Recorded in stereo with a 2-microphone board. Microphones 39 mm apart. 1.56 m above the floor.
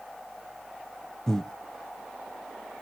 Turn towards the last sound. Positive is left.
turn(degrees=15)  # may be behind; listen again after turning